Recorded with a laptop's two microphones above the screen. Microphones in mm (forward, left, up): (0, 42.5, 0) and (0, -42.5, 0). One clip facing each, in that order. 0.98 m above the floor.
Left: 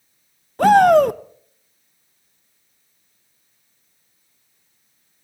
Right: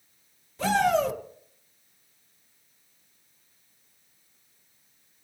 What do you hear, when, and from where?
0.6 s a shout: 55° left (ahead or behind), 0.7 m